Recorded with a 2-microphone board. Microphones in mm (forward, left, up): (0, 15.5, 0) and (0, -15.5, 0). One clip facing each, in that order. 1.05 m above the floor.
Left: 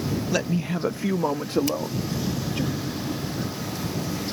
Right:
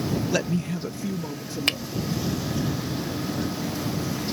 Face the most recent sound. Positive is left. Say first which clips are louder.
# right 2 dB
turn(degrees=-50)  # may be behind; listen again after turning